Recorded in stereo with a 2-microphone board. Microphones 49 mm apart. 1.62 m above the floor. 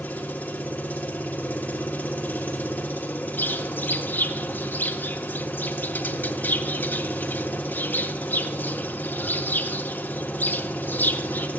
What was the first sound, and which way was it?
An engine running, 35° left (ahead or behind).